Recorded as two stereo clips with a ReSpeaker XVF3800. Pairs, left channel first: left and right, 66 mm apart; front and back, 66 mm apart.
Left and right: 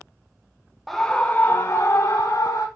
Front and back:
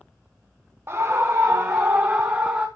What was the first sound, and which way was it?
A scream, 175° left.